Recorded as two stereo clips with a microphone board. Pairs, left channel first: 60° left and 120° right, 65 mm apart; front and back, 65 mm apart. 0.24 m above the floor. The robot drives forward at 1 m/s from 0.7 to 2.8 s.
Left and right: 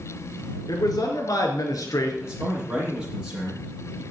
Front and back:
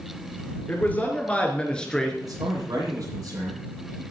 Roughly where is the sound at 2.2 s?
Behind.